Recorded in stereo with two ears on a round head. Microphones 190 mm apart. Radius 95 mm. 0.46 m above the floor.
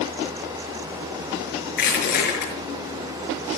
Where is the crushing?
45° left (ahead or behind), 6 m.